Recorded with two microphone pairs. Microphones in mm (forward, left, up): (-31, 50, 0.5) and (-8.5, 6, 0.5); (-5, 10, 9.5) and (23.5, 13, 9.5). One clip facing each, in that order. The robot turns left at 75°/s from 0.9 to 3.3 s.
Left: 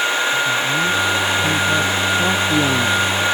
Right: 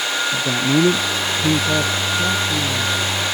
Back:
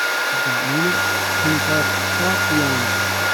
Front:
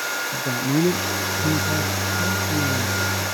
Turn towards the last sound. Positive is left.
turn(degrees=110)